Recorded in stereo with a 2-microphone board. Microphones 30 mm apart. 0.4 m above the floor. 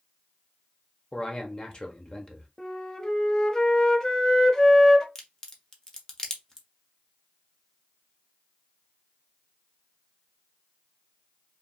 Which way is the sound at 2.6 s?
20° left (ahead or behind).